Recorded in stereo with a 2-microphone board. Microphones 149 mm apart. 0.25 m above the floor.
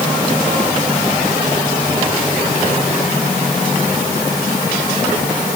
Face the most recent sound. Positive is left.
No sound to turn to.